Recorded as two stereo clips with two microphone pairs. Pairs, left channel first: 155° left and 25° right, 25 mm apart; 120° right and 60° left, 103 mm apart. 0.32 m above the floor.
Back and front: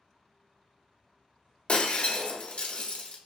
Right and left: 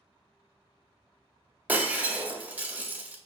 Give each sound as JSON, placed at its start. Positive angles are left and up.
{"t": 1.7, "sound": "breaking glass", "azimuth_deg": 135, "distance_m": 0.8}